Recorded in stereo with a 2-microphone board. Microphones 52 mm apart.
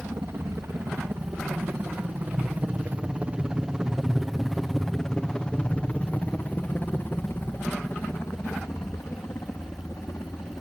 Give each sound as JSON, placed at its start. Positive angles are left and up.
{"t": 0.0, "sound": "a helicopter", "side_deg": -60}